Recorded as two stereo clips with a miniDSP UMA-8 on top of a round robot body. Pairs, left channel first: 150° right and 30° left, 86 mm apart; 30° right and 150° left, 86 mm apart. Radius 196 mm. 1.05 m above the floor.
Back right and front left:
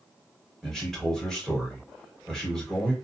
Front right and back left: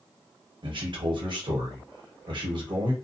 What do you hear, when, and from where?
0.6 s a man speaking: 125° left, 1.1 m